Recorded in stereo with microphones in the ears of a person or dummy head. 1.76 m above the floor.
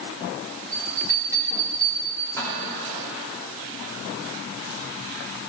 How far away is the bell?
About 1.8 m.